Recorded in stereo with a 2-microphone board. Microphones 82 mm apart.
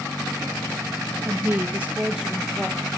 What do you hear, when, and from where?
1.2 s a woman speaking: 35° right (ahead or behind), 2.5 m; by 2.9 s 10° left (ahead or behind), 3 m